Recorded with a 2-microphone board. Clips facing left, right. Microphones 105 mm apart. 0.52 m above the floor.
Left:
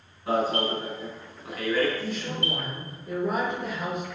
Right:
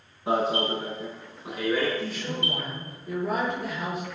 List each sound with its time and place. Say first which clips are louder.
0.3 s an alarm: even; 20° right (ahead or behind), 7 m
2.0 s a woman speaking: even; centre (ahead or behind), 8.5 m